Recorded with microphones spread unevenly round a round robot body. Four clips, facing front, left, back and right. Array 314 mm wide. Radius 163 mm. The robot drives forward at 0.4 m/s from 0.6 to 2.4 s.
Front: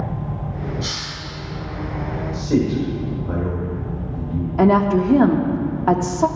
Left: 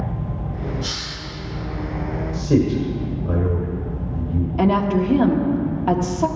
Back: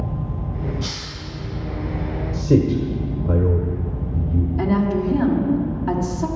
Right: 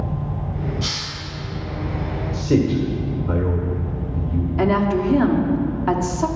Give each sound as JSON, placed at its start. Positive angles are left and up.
{"t": 0.8, "sound": "a hiss", "azimuth_deg": -110, "distance_m": 5.0}
{"t": 2.3, "sound": "a man speaking", "azimuth_deg": -175, "distance_m": 1.6}
{"t": 4.6, "sound": "a woman speaking", "azimuth_deg": 5, "distance_m": 1.6}